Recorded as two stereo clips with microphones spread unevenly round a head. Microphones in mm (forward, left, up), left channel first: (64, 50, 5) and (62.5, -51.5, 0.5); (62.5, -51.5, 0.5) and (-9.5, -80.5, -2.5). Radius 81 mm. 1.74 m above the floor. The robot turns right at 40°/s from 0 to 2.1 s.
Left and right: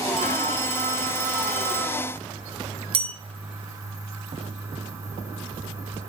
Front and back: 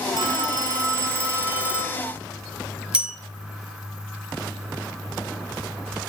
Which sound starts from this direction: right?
A bell, at 2.9 s.